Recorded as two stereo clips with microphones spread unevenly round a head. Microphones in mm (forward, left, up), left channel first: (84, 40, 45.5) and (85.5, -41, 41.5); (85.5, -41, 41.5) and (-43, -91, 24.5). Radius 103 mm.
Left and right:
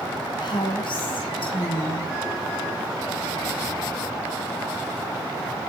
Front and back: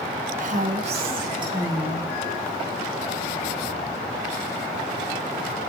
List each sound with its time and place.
0.4 s a woman speaking: 155° left, 1.2 m; by 2.1 s 125° left, 1.9 m